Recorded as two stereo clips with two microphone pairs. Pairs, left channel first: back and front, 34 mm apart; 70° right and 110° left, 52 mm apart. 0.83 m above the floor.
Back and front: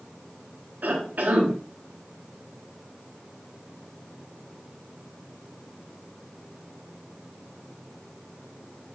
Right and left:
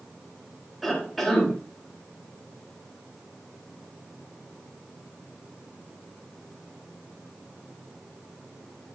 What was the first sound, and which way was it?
A cough, 15° left.